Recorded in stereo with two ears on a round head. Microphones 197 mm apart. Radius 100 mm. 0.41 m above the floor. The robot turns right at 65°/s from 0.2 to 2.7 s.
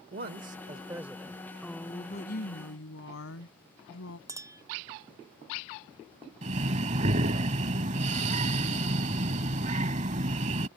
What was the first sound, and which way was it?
A man speaking, 65° right.